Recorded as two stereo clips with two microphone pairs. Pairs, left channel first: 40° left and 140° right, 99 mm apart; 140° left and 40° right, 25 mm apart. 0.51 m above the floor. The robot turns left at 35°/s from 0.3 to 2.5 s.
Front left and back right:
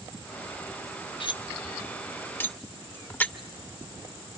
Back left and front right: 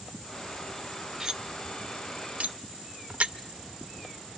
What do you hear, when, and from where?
1.2 s cutlery clinking: 15° left, 0.6 m; by 3.3 s 30° right, 0.6 m